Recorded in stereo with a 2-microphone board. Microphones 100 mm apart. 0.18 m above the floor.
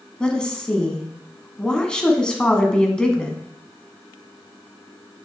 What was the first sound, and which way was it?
A woman speaking, 10° left (ahead or behind).